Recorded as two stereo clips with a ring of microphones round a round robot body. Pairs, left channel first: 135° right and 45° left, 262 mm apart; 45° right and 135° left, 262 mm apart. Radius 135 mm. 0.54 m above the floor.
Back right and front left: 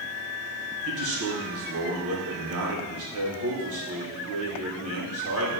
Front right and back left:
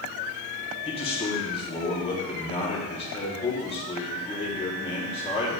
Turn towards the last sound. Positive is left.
turn(degrees=20)